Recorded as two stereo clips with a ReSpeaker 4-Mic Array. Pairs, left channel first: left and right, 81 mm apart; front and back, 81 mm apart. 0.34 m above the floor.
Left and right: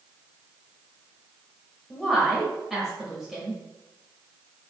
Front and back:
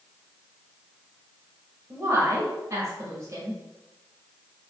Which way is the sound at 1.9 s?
175° right.